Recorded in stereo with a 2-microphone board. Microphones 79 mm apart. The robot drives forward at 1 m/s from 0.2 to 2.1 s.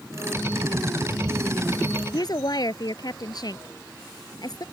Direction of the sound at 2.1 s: 60° left (ahead or behind).